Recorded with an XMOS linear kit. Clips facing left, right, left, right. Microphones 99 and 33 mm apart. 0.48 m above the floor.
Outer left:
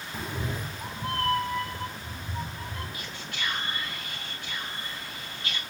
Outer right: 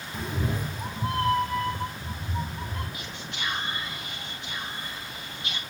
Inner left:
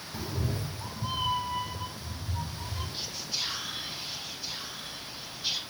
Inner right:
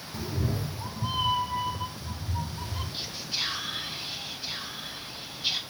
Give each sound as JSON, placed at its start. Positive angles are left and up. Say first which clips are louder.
{"t": 0.1, "sound": "a cat meowing", "louder": "outer right 3 dB, inner right 3 dB", "side_deg": 5, "distance_m": 0.5}
{"t": 2.9, "sound": "whispering", "louder": "outer right 1 dB, inner right 3 dB", "side_deg": -25, "distance_m": 3.0}